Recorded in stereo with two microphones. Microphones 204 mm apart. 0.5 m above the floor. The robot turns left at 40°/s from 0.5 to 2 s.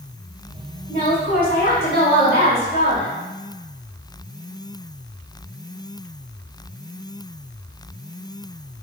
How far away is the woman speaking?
About 1.8 m.